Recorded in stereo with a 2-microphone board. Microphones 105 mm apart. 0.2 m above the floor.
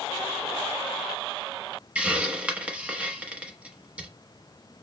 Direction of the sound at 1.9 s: 10° right (ahead or behind).